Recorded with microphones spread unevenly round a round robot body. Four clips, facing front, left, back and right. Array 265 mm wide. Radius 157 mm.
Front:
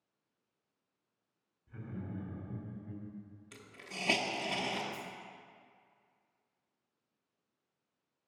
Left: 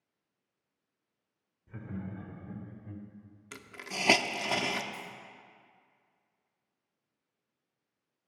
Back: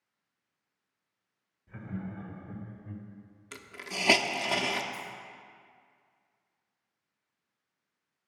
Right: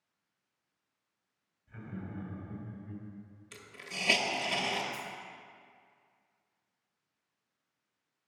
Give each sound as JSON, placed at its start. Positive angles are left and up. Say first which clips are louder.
{"t": 1.7, "sound": "laughter", "louder": "left 2 dB, back 4 dB", "azimuth_deg": 95, "distance_m": 1.9}
{"t": 3.5, "sound": "a hiss", "louder": "left 5 dB, back 8 dB", "azimuth_deg": 135, "distance_m": 0.8}
{"t": 4.9, "sound": "a dropped coin", "louder": "right 3 dB, back 3 dB", "azimuth_deg": 0, "distance_m": 3.0}